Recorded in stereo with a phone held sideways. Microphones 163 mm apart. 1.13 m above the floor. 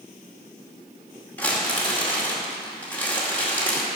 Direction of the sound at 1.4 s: 10° left (ahead or behind).